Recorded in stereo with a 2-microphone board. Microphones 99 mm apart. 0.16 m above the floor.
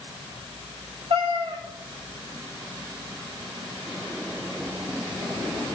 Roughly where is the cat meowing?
Right.